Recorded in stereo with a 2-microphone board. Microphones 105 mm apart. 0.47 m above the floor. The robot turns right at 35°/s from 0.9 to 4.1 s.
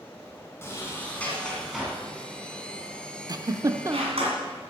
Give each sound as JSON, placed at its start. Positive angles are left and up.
{"t": 0.6, "sound": "a sliding door", "side_deg": 25, "distance_m": 3.0}
{"t": 3.3, "sound": "a giggle", "side_deg": -40, "distance_m": 0.6}